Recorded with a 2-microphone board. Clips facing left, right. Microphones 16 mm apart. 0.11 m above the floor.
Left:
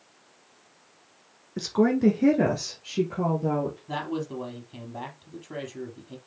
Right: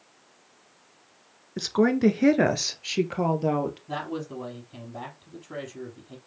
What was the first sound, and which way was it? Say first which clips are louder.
A woman speaking: right 1 dB; 15° right (ahead or behind).